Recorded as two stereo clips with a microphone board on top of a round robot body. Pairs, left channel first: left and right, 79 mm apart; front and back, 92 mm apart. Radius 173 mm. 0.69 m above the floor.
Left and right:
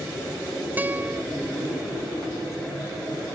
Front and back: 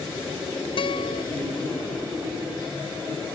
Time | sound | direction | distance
0.8 | a guitar | 20° right | ?